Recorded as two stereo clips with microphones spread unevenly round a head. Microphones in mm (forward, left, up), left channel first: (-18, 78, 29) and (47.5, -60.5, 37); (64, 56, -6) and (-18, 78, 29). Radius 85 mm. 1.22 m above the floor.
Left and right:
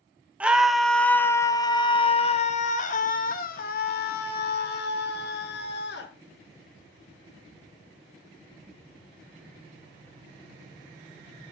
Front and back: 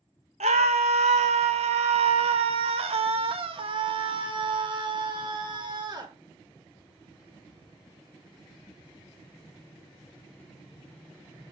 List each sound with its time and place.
0.4 s a scream: 150° right, 1.4 m; by 6.1 s 130° left, 3 m